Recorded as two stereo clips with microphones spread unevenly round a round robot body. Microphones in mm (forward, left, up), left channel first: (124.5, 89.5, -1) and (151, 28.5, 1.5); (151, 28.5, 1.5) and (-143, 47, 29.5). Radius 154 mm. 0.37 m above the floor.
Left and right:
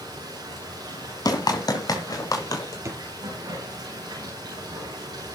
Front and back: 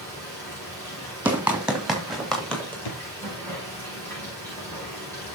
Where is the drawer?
25° right, 3.5 m.